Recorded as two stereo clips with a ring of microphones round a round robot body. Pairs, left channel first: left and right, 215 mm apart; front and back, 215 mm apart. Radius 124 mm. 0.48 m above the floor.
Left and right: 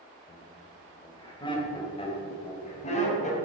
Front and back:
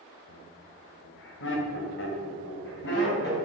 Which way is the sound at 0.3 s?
10° left.